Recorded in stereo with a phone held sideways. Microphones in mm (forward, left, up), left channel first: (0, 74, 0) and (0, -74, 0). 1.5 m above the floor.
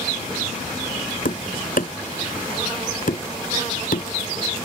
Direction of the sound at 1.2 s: 70° left (ahead or behind).